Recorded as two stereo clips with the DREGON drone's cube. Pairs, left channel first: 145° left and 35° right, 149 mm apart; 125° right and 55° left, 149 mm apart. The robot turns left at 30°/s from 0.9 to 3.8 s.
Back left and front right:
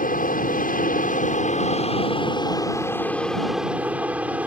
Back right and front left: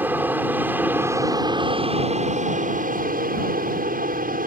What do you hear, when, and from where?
0.0 s an aircraft: 135° left; by 4.5 s 45° left